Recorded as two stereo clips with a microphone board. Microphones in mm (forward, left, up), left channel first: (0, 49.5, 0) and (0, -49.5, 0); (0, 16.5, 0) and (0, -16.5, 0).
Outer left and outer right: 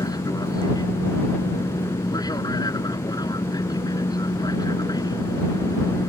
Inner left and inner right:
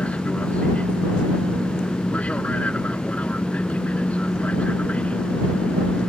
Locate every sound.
0.0 s an aircraft: 40° left (ahead or behind)